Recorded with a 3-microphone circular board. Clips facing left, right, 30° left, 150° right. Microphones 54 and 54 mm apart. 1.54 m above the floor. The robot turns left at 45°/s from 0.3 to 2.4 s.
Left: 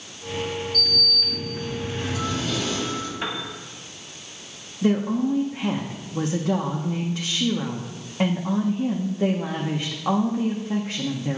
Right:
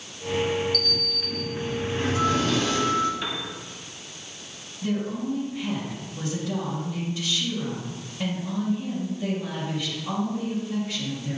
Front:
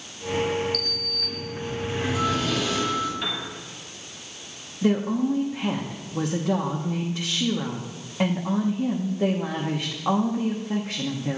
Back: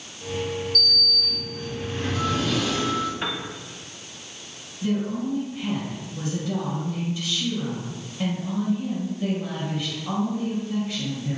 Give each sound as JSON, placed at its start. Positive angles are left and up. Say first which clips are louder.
{"t": 0.7, "sound": "a sliding door", "louder": "left 2 dB, back 4 dB", "azimuth_deg": 15, "distance_m": 2.5}
{"t": 3.2, "sound": "a piano", "louder": "left 2 dB, back 1 dB", "azimuth_deg": 150, "distance_m": 1.6}
{"t": 4.8, "sound": "a woman speaking", "louder": "left 6 dB, front 3 dB", "azimuth_deg": 65, "distance_m": 1.2}